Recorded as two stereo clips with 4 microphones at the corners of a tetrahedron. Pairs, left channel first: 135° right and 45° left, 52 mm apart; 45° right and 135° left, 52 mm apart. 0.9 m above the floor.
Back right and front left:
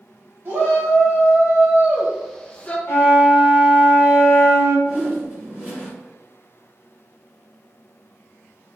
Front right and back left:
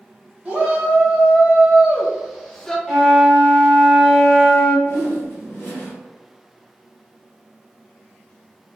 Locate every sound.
0.5 s a shout: 70° left, 1.3 m; by 2.8 s 115° right, 0.7 m
2.9 s a flute: 140° right, 1.2 m
4.8 s a whoosh: 10° right, 1.8 m